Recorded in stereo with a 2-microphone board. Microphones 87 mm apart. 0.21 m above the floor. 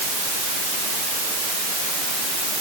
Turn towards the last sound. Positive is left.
No sound to turn to.